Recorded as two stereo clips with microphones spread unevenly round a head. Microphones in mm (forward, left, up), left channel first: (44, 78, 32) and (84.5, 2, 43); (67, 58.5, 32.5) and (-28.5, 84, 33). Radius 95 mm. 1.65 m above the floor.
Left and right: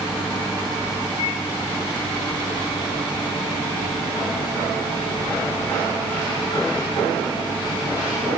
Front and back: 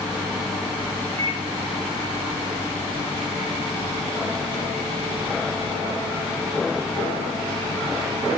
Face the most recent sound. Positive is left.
turn(degrees=160)